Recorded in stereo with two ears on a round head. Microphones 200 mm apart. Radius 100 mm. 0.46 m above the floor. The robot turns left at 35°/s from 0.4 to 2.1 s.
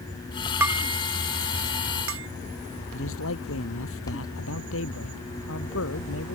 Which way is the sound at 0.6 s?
10° right (ahead or behind).